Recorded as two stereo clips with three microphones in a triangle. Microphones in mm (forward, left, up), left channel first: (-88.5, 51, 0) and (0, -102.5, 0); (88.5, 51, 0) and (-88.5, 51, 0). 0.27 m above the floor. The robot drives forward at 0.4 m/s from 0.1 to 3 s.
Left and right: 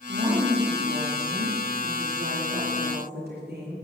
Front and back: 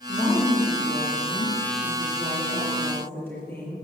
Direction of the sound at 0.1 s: 65° right.